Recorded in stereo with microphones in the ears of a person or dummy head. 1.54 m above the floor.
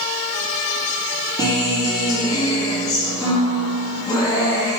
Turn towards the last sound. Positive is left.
turn(degrees=25)  # may be behind; listen again after turning